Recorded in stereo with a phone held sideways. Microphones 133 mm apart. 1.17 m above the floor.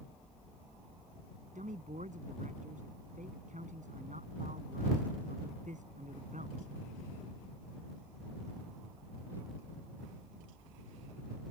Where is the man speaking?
70° right (ahead or behind).